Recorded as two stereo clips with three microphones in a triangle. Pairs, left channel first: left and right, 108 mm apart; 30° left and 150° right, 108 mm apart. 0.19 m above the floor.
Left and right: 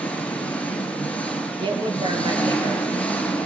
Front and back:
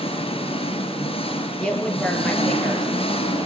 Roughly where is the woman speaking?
Ahead right.